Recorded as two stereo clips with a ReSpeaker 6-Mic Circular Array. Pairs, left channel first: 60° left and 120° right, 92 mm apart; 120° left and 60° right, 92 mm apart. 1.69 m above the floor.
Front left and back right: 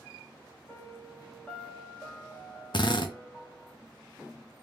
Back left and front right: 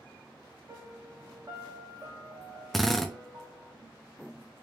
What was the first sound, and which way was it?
A piano, 15° right.